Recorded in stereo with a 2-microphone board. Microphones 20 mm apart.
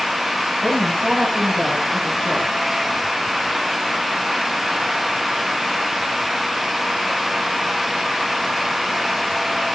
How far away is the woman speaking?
About 9.5 m.